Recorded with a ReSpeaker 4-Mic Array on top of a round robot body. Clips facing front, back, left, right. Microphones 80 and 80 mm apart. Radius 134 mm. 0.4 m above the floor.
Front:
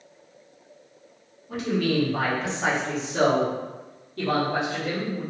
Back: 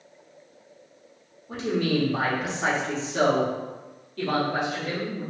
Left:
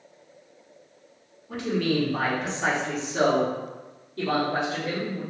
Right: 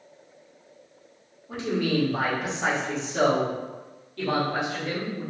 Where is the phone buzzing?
No phone buzzing in this recording.